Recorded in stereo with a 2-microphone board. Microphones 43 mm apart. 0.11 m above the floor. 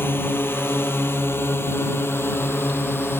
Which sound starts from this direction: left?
A drone, at 0.0 s.